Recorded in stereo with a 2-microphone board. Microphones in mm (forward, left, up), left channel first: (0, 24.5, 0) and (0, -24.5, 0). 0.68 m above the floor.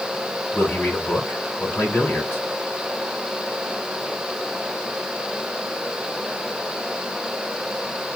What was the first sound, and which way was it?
A man speaking, 45° left (ahead or behind).